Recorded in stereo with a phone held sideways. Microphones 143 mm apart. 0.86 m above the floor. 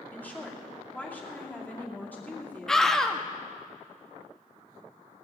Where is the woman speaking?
10° left (ahead or behind), 2.5 m.